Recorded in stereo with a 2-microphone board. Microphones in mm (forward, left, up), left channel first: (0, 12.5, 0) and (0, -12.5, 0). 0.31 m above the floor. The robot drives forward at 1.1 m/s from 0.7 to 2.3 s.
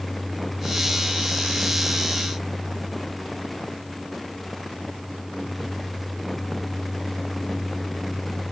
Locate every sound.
Only background noise.